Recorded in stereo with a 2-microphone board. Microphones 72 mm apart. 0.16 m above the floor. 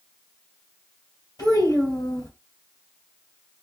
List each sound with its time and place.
1.4 s a child speaking: 60° left (ahead or behind), 2 m